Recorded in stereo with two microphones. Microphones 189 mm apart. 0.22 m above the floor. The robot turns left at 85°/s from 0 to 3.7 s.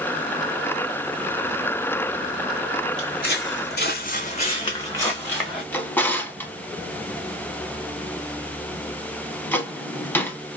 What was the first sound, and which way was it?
Footsteps, 20° left (ahead or behind).